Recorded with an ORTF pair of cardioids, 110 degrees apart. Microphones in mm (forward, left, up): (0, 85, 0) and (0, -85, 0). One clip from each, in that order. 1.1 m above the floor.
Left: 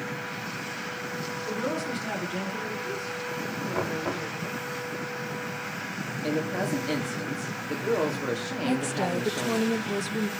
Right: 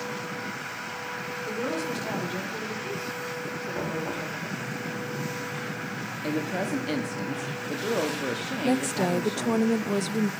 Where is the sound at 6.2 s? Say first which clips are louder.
Left 1 dB; 10° right, 2 m.